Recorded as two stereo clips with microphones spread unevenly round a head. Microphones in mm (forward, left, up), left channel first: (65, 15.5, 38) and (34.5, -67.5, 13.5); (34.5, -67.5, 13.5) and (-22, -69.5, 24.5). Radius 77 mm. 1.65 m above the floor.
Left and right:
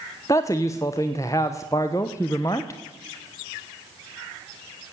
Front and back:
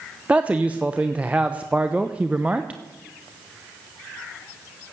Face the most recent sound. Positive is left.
turn(degrees=115)